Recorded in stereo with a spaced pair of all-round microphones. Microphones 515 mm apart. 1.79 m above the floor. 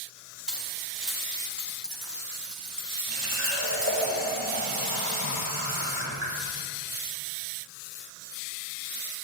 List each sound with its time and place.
0.5 s keys jangling: centre (ahead or behind), 4.5 m
3.1 s a running tap: 30° right (ahead or behind), 6 m